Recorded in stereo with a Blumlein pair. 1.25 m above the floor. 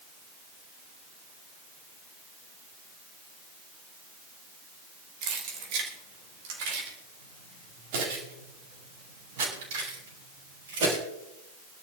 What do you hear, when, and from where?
5.2 s keys jangling: 40° right, 3 m; by 11.0 s 60° right, 8 m